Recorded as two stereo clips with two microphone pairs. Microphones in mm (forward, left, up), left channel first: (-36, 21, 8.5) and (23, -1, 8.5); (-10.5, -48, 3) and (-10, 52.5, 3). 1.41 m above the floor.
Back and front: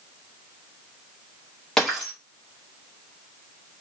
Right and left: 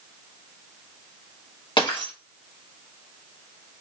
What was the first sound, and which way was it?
Breaking glass, 120° right.